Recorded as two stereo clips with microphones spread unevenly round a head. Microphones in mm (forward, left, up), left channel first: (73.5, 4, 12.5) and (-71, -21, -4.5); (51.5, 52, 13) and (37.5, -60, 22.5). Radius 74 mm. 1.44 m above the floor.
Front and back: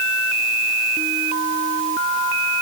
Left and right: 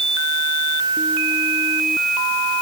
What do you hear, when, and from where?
Only background noise.